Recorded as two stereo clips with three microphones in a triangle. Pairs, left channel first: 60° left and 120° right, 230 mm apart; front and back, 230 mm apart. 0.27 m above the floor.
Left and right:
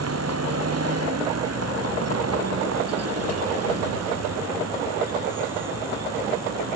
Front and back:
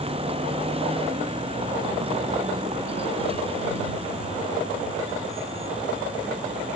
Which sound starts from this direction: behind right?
A vehicle, at 0.0 s.